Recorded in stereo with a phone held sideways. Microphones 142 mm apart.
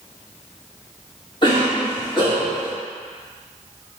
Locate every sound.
1.4 s a cough: 35° left (ahead or behind), 1.8 m